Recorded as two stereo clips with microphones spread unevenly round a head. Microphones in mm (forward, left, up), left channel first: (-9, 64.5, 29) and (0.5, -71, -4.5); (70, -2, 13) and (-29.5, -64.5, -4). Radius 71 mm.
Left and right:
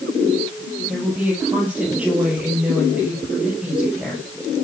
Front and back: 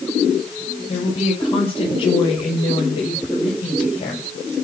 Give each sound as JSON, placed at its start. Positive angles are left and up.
{"t": 0.9, "sound": "a woman speaking", "azimuth_deg": -5, "distance_m": 9.5}